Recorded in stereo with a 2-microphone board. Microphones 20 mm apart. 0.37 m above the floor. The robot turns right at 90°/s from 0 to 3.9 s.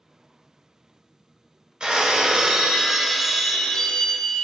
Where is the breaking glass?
120° right, 0.6 m; by 4.5 s 70° left, 0.6 m.